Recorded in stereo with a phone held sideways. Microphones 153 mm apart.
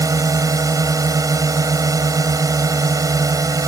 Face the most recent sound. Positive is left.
turn(degrees=-20)  # may be behind; listen again after turning